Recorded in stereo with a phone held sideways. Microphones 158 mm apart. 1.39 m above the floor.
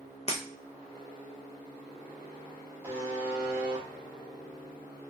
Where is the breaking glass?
45° left (ahead or behind), 0.7 m.